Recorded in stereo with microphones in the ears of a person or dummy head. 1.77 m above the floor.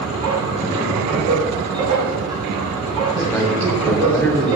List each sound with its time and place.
0.0 s a machine running: 25° right (ahead or behind), 2.5 m
3.1 s a man speaking: 10° left (ahead or behind), 1.1 m